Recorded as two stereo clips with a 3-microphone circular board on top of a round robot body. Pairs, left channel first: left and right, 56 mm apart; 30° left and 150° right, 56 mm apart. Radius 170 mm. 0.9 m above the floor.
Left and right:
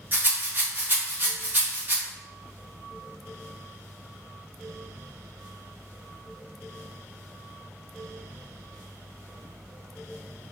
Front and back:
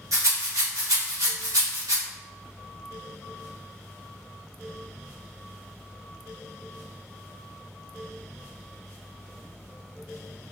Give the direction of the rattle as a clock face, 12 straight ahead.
5 o'clock.